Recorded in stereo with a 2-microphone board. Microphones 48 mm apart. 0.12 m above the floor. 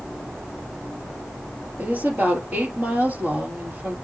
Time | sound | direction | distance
1.8 | a woman speaking | 35° right (ahead or behind) | 2.5 m